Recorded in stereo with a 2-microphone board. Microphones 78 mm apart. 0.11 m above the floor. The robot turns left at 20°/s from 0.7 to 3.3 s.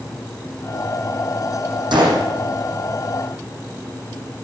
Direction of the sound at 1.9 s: 75° right (ahead or behind).